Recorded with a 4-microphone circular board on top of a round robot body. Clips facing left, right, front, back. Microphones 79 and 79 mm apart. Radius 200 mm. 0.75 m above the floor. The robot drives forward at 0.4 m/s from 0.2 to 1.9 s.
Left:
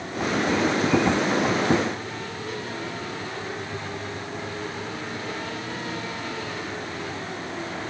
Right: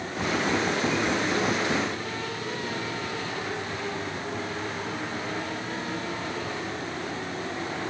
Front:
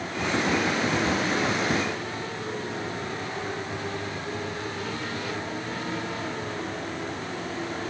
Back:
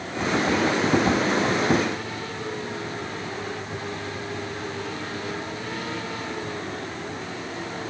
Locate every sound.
Only background noise.